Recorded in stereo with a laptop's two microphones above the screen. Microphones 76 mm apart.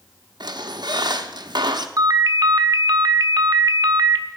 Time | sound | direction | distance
0.4 | a squeak | 65° right (ahead or behind) | 0.9 m
2.0 | a ringtone | 50° right (ahead or behind) | 0.9 m